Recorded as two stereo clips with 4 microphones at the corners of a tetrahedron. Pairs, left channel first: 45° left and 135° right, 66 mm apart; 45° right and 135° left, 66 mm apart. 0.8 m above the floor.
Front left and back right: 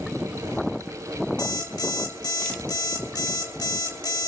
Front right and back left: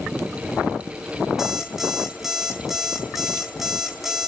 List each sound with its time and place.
1.4 s an alarm clock: 50° left, 1.6 m